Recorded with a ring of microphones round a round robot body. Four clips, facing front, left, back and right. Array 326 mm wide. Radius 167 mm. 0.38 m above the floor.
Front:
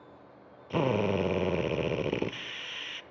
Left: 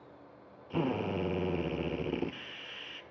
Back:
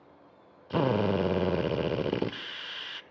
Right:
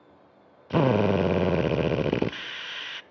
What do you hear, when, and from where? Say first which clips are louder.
0.7 s a drill: right 11 dB, back 1 dB; 95° right, 0.6 m